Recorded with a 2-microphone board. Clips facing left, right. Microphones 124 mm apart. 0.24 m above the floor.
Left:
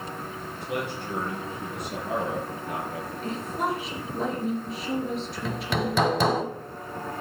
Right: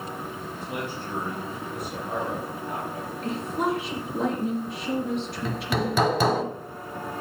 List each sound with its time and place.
0.6 s a man speaking: 70° left (ahead or behind), 5 m; by 3.1 s 75° left (ahead or behind), 4.5 m
3.2 s a woman speaking: centre (ahead or behind), 4 m
5.5 s hammering: centre (ahead or behind), 1.1 m